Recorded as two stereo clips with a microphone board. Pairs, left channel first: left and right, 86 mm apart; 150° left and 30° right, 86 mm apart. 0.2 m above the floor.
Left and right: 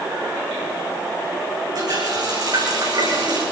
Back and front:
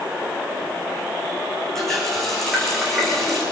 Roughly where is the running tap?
Behind right.